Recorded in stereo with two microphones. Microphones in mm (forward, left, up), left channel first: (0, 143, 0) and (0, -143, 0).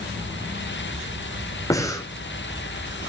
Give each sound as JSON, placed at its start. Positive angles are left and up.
{"t": 1.7, "sound": "breathing", "side_deg": 10, "distance_m": 2.0}